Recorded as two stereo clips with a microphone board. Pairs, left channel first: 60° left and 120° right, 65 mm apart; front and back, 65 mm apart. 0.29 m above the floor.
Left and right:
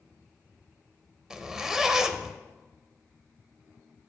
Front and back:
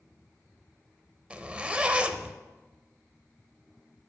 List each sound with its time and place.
1.3 s a zipper: 175° left, 0.6 m